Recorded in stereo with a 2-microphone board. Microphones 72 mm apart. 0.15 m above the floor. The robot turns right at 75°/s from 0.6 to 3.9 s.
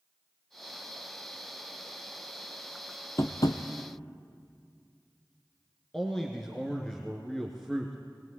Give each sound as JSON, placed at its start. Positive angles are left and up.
{"t": 3.2, "sound": "tapping", "side_deg": 35, "distance_m": 1.4}
{"t": 5.9, "sound": "a man speaking", "side_deg": 5, "distance_m": 2.0}